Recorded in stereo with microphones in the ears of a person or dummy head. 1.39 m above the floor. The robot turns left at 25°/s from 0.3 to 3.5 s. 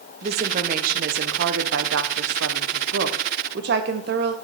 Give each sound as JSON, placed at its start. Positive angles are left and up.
{"t": 0.2, "sound": "a woman speaking", "azimuth_deg": -40, "distance_m": 0.7}